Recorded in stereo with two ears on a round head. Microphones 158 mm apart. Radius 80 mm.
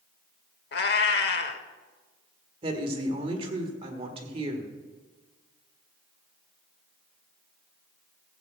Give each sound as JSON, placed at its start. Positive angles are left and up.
{"t": 0.7, "sound": "a cat meowing", "side_deg": 60, "distance_m": 1.1}
{"t": 2.6, "sound": "a woman speaking", "side_deg": -30, "distance_m": 1.6}